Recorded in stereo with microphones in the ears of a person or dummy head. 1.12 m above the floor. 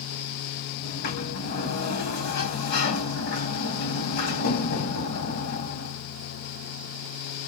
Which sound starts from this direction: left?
A sliding door, at 0.8 s.